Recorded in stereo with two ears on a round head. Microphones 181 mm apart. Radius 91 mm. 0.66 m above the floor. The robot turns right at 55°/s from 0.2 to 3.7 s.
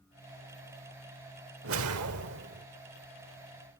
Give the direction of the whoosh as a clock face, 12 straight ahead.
4 o'clock.